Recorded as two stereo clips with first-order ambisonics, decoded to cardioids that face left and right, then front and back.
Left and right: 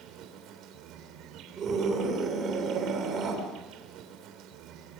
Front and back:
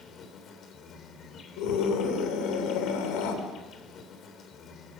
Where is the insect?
55° right, 3 m.